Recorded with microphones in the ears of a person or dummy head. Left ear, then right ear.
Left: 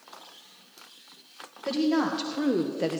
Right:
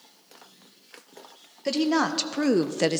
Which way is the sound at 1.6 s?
40° right (ahead or behind).